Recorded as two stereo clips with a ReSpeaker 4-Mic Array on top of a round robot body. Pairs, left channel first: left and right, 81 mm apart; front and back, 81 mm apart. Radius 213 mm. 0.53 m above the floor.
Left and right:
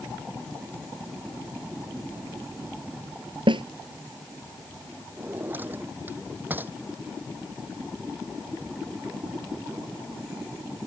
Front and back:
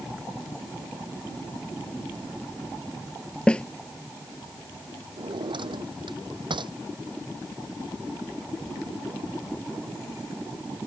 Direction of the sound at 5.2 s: 155° right.